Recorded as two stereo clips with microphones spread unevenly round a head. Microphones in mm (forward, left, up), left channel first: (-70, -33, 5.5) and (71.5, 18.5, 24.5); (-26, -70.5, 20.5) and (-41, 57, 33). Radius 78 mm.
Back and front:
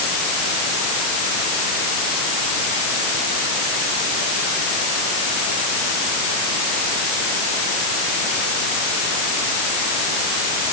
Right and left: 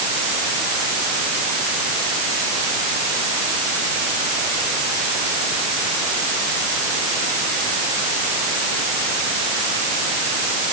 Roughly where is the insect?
No insect in this recording.